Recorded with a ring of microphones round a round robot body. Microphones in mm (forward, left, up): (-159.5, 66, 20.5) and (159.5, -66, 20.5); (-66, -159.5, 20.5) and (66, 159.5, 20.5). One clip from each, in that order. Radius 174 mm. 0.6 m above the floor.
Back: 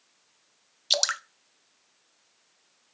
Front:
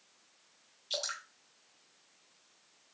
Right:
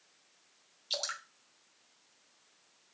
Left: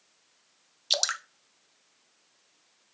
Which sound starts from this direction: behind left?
Dripping, at 0.9 s.